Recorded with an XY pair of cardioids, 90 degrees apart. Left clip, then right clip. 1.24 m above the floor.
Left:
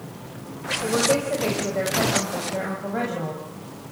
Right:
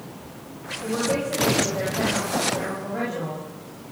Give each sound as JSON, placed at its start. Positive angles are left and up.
{"t": 0.8, "sound": "a woman speaking", "azimuth_deg": 45, "distance_m": 5.5}